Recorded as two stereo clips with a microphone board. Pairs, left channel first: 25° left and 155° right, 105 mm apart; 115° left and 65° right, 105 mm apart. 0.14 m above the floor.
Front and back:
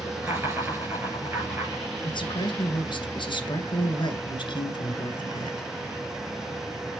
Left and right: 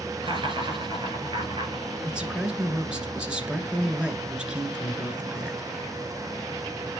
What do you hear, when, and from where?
0.2 s laughter: 95° right, 2.5 m
2.0 s a man speaking: 10° left, 1.9 m